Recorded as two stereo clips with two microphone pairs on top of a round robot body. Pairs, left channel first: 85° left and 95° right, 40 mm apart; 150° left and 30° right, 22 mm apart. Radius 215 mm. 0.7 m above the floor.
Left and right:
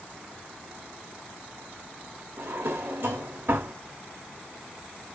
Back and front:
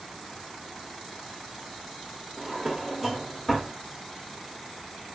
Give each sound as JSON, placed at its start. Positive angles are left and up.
{"t": 2.4, "sound": "a drawer", "azimuth_deg": -130, "distance_m": 0.9}